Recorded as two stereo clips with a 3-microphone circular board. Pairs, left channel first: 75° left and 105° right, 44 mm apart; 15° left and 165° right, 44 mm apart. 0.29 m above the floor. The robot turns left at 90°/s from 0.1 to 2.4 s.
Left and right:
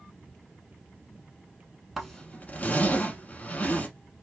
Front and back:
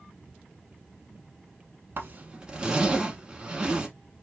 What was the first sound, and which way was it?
A zipper, 170° left.